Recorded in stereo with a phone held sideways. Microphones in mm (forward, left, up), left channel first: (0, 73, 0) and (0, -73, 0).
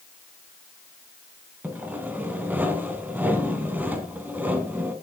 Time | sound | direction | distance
1.6 | sawing | 10° right (ahead or behind) | 2.5 m